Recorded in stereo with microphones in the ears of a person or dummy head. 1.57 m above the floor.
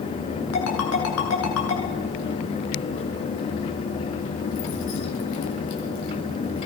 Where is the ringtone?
80° left, 7.5 m.